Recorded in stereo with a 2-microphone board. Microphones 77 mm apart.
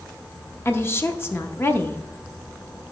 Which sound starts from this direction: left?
A woman speaking, at 0.7 s.